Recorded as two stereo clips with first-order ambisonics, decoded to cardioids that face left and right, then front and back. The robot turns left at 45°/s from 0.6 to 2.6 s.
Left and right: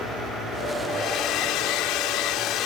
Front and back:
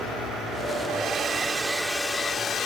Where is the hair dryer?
135° left; by 2.7 s 55° left.